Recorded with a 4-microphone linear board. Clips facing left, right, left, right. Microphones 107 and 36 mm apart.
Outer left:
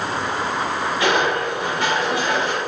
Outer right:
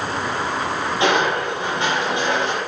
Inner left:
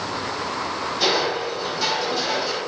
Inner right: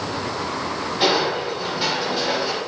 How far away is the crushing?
About 4 m.